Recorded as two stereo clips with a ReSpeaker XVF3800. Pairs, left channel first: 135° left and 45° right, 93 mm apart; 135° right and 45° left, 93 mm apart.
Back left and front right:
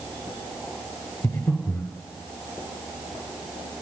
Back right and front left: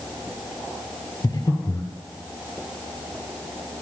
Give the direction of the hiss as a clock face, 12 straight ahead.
I don't hear a hiss.